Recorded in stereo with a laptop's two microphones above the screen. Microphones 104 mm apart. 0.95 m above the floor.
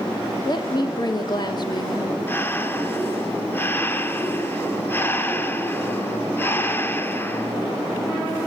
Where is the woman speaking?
45° left (ahead or behind), 1.7 m.